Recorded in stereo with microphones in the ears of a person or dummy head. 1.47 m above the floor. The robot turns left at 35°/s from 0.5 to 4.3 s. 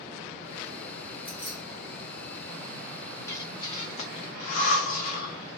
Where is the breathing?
15° left (ahead or behind), 0.8 m; by 5.6 s 50° left (ahead or behind), 0.8 m.